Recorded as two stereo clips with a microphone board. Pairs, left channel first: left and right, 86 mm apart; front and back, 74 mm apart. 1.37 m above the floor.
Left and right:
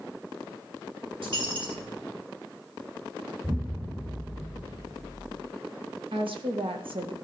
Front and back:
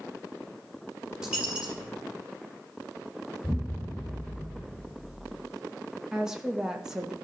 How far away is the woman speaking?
About 1.6 m.